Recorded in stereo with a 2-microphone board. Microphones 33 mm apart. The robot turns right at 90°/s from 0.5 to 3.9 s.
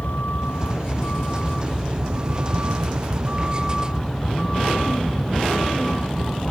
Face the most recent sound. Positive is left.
turn(degrees=15)